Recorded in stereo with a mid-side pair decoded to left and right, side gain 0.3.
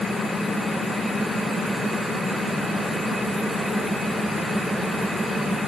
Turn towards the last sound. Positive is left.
No sound to turn to.